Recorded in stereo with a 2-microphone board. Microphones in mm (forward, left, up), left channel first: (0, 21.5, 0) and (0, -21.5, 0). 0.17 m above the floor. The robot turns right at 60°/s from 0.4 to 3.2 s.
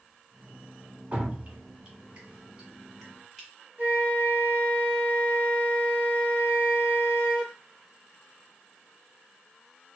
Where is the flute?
45° right (ahead or behind), 1.6 m.